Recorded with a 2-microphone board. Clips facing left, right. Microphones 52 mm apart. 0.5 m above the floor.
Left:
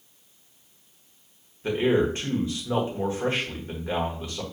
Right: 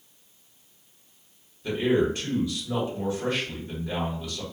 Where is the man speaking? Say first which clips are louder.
Left 1 dB; 35° left (ahead or behind), 1.2 m.